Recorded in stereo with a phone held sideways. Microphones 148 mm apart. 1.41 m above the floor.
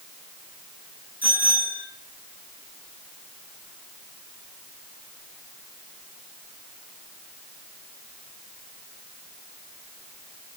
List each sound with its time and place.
1.2 s a bicycle bell: 10° right (ahead or behind), 10 m